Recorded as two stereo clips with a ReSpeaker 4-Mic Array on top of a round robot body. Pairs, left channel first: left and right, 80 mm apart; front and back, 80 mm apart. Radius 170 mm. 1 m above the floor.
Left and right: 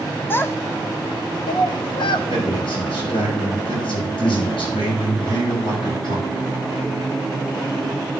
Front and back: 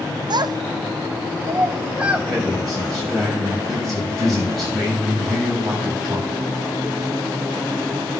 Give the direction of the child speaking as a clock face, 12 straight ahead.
7 o'clock.